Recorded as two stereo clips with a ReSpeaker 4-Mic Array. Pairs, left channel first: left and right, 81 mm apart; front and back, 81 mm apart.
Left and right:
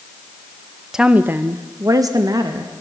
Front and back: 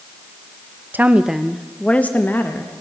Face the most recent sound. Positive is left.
turn(degrees=-60)